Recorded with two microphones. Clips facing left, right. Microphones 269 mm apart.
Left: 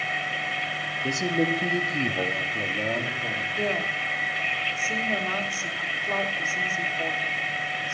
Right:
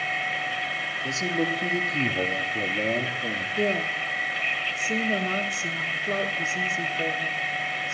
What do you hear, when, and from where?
1.0 s a man speaking: 20° left (ahead or behind), 1.2 m; by 3.5 s 30° right (ahead or behind), 1.6 m
3.6 s a woman speaking: 25° right (ahead or behind), 1.3 m